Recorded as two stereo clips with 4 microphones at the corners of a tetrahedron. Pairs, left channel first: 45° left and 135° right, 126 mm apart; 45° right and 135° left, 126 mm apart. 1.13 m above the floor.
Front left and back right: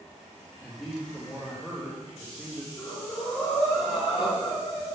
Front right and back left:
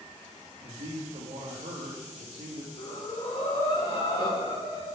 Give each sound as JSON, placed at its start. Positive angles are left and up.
{"t": 0.6, "sound": "a man speaking", "azimuth_deg": 130, "distance_m": 1.6}
{"t": 2.8, "sound": "breathing", "azimuth_deg": 5, "distance_m": 2.0}